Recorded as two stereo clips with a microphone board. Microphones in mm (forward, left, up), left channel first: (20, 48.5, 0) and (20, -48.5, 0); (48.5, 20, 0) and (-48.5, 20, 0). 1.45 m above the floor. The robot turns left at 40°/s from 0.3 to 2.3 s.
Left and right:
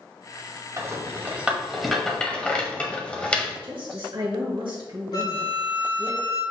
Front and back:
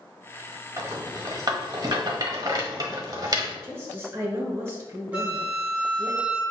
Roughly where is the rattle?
Behind right.